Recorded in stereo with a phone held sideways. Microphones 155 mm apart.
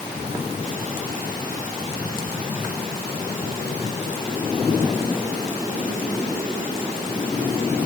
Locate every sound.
Only background noise.